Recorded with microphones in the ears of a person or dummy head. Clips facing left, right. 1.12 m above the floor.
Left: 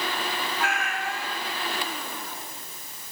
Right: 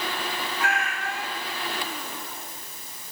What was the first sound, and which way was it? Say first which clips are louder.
A cat meowing: right 1 dB; 45° left (ahead or behind).